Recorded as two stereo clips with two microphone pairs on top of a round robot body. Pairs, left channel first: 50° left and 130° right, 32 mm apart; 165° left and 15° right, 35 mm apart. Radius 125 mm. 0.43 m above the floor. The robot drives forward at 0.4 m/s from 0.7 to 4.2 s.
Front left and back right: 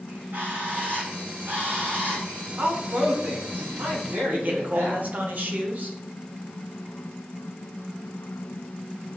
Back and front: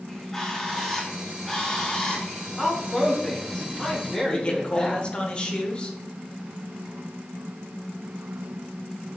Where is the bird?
120° right, 5 m; by 2.5 s 125° right, 5.5 m.